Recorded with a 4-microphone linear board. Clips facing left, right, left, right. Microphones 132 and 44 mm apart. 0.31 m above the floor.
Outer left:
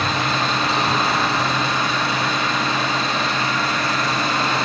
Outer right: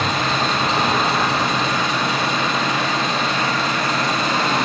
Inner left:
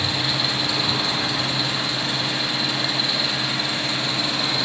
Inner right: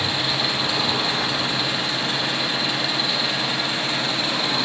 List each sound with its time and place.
0.0 s an engine running: 20° right (ahead or behind), 4 m